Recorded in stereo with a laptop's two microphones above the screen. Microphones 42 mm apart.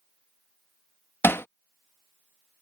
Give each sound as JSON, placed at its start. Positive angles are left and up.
{"t": 1.2, "sound": "hammering", "side_deg": 70}